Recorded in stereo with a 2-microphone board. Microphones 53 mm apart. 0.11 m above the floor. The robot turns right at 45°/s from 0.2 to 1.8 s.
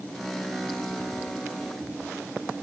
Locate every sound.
Only background noise.